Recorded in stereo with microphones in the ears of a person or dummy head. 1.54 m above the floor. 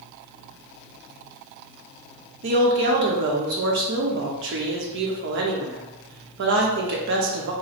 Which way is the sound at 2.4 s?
60° right (ahead or behind).